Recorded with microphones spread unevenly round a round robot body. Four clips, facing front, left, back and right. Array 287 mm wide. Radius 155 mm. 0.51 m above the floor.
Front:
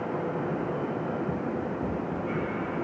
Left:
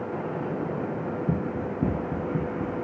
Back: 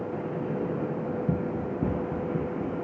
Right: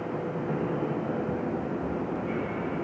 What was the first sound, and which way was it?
Running footsteps, 135° left.